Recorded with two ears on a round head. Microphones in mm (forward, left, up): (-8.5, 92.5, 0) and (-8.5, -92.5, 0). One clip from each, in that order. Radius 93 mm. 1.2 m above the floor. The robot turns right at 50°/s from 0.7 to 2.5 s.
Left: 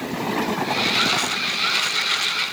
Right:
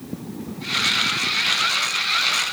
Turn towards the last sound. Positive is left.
No sound to turn to.